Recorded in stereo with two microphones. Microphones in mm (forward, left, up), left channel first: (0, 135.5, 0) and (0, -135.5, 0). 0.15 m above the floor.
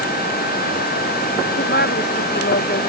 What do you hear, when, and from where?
1.5 s a woman speaking: 40° left (ahead or behind)